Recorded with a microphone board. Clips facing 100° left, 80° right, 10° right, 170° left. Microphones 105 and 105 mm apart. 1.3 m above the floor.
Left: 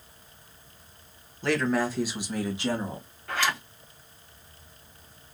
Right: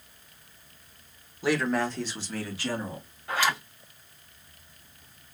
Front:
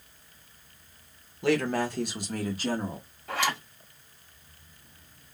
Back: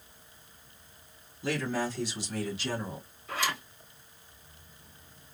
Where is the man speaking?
Straight ahead, 1.1 m; by 3.1 s 40° left, 1.6 m.